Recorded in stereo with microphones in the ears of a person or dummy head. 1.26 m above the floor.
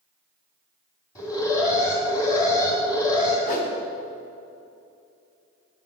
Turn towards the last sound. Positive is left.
turn(degrees=50)  # may be behind; listen again after turning